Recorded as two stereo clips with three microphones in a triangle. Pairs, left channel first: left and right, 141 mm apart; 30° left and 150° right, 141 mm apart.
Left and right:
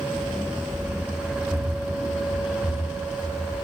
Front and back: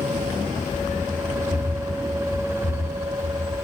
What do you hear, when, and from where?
0.1 s running footsteps: 10° right, 6 m; by 3.5 s 5° right, 8.5 m